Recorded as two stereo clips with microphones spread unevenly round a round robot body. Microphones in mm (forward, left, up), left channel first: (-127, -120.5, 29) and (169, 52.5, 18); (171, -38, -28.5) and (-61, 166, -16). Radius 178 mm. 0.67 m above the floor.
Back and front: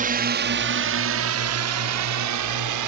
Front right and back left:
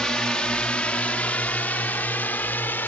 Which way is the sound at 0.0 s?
40° left.